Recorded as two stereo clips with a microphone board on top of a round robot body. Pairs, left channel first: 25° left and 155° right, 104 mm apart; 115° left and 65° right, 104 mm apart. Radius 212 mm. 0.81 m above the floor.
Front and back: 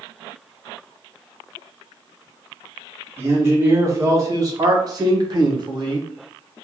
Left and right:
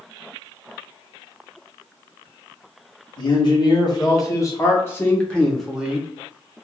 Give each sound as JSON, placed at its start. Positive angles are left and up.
{"t": 3.2, "sound": "a man speaking", "azimuth_deg": 140, "distance_m": 1.8}